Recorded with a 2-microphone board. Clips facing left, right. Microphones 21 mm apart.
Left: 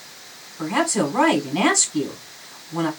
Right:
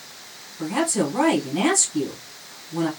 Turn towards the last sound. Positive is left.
turn(degrees=35)  # may be behind; listen again after turning